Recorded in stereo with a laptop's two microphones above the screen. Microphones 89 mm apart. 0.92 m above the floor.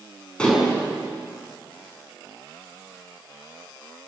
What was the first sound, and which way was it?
Dishes clattering, 10° left (ahead or behind).